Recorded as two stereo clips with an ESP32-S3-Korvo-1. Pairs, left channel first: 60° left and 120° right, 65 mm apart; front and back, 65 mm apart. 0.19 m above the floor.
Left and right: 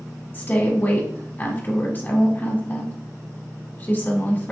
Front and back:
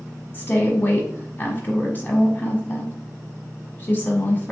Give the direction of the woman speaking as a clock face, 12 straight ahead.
11 o'clock.